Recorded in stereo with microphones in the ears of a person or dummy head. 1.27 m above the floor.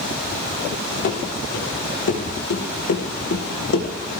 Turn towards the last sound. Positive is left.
turn(degrees=65)  # may be behind; listen again after turning